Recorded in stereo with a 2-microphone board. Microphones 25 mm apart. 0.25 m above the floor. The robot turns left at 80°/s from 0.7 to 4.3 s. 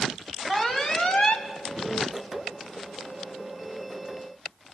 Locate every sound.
0.5 s an alarm: 150° left, 1.3 m; by 1.5 s 90° left, 1.3 m